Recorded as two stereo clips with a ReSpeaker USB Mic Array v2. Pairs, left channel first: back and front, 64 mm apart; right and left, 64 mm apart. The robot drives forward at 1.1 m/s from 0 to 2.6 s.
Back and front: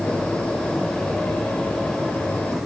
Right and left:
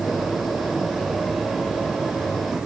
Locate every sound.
Only background noise.